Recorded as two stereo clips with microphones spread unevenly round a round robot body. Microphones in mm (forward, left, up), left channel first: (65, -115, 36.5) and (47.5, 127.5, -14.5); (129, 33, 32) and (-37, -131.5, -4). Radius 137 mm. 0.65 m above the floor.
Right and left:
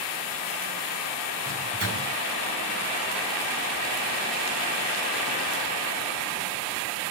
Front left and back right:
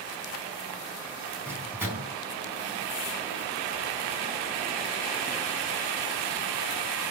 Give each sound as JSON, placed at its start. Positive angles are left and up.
{"t": 1.4, "sound": "a microwave", "azimuth_deg": 140, "distance_m": 4.0}